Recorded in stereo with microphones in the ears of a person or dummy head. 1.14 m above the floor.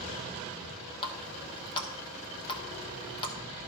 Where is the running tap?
25° left (ahead or behind), 0.9 m.